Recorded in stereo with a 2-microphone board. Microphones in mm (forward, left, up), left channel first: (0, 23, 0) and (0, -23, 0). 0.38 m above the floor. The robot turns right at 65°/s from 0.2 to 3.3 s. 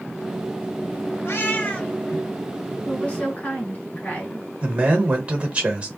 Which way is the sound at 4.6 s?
25° right (ahead or behind).